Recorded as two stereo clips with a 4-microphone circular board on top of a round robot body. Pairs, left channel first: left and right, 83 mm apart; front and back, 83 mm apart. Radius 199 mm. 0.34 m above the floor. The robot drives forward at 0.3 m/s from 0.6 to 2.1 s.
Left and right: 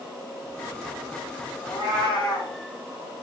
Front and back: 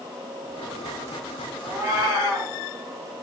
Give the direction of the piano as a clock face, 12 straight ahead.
No piano in this recording.